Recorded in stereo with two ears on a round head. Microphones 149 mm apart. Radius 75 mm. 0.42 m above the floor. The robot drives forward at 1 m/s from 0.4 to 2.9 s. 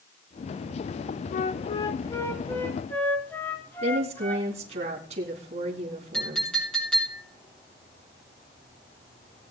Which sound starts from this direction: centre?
A clink, at 6.1 s.